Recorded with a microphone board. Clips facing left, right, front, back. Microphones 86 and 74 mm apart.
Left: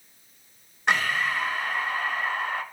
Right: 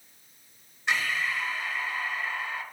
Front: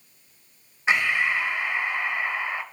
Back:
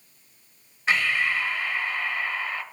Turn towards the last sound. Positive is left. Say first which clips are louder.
# left 4 dB, front 1 dB
turn(degrees=65)